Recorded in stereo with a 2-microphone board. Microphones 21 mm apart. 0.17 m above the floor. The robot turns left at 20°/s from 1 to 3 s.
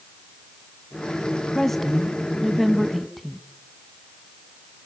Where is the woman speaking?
10° left (ahead or behind), 1.2 m; by 3.4 s 5° right (ahead or behind), 1.2 m.